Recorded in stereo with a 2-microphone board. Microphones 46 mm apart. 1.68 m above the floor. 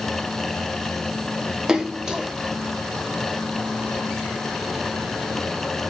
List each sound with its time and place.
1.7 s a splash: 10° right (ahead or behind), 0.7 m